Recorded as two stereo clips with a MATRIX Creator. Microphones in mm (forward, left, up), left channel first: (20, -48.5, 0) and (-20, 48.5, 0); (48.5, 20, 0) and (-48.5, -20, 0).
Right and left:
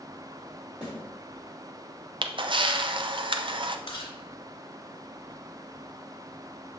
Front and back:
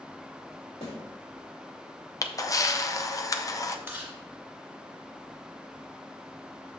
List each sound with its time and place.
0.8 s a snare drum: 30° left, 3 m
2.2 s a camera shutter: 80° left, 0.5 m
3.9 s chewing: 90° right, 1.8 m